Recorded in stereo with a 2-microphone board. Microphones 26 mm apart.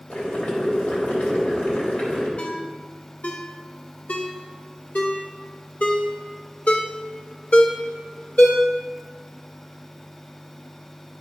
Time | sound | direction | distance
0.1 | boiling | 60° left (ahead or behind) | 3 m
2.4 | a ringtone | 65° left (ahead or behind) | 1.5 m